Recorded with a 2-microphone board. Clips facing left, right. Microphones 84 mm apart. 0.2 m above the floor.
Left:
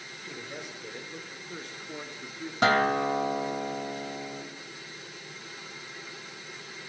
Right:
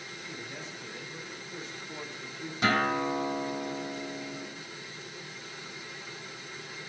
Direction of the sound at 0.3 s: 60° left (ahead or behind).